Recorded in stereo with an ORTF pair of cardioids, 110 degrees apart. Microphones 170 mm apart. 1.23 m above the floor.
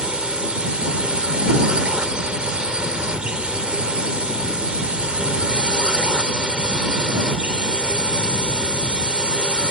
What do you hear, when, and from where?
0.0 s a drone: 5° right